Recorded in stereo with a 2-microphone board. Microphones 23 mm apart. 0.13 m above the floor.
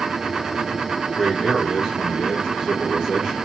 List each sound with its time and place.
1.2 s a man speaking: 25° right (ahead or behind), 2.5 m